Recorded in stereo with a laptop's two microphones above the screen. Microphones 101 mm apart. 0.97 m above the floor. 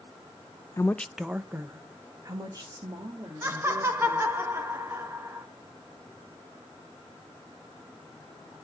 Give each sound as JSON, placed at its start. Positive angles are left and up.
{"t": 0.8, "sound": "a woman speaking", "side_deg": 25, "distance_m": 0.5}
{"t": 3.4, "sound": "laughter", "side_deg": -25, "distance_m": 1.3}